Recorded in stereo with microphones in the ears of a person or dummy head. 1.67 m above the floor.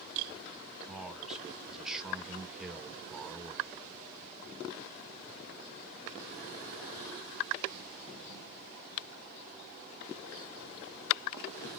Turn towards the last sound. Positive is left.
turn(degrees=-5)  # may be behind; listen again after turning